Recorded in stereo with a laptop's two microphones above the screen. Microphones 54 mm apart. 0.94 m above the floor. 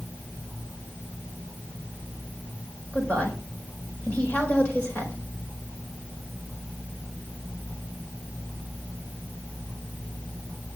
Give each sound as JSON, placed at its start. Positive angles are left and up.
{"t": 2.9, "sound": "a woman speaking", "side_deg": 25, "distance_m": 4.0}